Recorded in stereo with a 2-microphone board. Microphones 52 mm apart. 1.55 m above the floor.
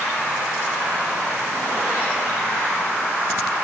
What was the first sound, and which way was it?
Only background noise.